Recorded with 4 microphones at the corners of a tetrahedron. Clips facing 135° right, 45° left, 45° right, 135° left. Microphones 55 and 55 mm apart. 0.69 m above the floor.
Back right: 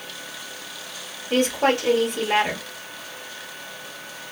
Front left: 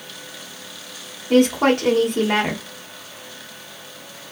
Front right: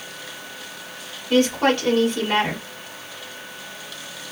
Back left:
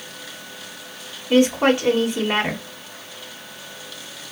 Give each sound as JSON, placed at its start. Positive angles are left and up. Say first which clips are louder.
{"t": 1.3, "sound": "a woman speaking", "louder": "front left 5 dB, back left 2 dB", "azimuth_deg": 65, "distance_m": 1.3}